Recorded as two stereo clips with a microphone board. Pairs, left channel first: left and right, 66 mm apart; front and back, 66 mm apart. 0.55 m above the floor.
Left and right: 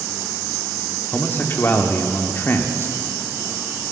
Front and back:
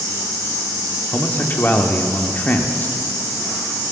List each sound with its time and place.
1.1 s a man speaking: 50° left, 1.3 m